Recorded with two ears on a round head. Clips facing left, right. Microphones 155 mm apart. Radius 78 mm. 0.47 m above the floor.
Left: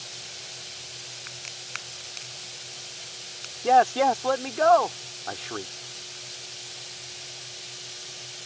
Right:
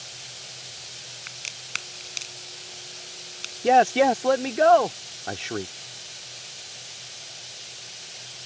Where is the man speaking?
25° right (ahead or behind).